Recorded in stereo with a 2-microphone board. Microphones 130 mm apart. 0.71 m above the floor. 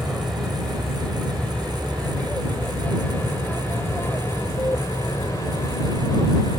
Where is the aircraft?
Centre (ahead or behind); by 6.6 s 30° left (ahead or behind).